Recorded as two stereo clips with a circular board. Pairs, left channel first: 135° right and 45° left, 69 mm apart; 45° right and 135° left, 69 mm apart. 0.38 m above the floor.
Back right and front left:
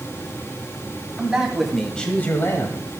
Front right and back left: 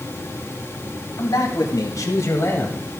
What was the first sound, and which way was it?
A man speaking, 30° right.